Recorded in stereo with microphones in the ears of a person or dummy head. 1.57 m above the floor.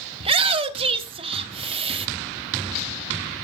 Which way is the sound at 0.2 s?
35° right (ahead or behind).